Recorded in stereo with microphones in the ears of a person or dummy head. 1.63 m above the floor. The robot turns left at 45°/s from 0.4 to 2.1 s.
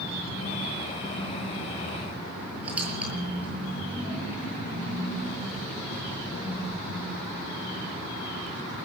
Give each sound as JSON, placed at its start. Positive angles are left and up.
{"t": 2.6, "sound": "a squeak", "side_deg": -10, "distance_m": 8.5}